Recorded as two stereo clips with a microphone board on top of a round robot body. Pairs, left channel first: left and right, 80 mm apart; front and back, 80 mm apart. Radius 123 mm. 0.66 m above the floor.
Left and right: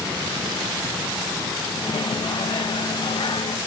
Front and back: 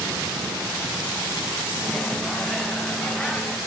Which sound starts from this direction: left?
A microwave, at 1.8 s.